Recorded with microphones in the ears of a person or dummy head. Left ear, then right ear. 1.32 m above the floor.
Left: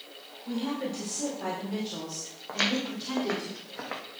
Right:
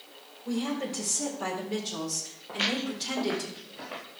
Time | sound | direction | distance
0.5 | a woman speaking | 15° right (ahead or behind) | 4 m
2.5 | footsteps | 65° left (ahead or behind) | 3 m